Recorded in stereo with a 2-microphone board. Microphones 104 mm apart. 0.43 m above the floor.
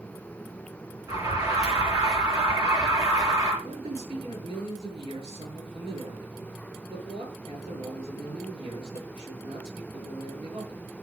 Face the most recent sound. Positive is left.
turn(degrees=-60)  # may be behind; listen again after turning